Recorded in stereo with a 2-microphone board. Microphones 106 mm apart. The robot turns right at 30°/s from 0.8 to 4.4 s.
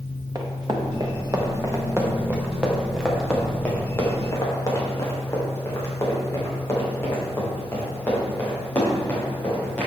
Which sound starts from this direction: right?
Running footsteps, at 0.3 s.